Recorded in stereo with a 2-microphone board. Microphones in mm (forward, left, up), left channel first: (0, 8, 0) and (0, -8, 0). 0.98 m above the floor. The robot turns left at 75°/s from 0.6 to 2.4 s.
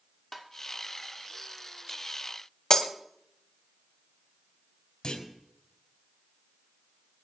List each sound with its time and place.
0.3 s tapping: 15° left (ahead or behind), 1.6 m
2.7 s breaking glass: 35° left (ahead or behind), 1.2 m
5.0 s a clunk: 55° left (ahead or behind), 3.5 m